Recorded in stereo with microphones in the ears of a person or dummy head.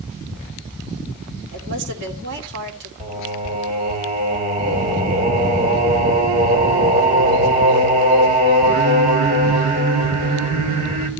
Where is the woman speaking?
60° right (ahead or behind), 3 m.